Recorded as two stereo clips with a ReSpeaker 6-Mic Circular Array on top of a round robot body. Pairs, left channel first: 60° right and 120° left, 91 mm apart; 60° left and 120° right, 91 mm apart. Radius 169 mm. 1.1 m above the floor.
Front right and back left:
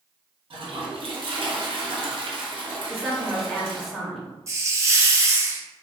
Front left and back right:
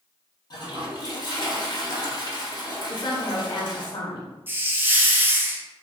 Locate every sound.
0.5 s a toilet flushing: 100° left, 1.0 m
2.9 s a woman speaking: 30° left, 0.9 m
4.5 s a hiss: 170° left, 0.9 m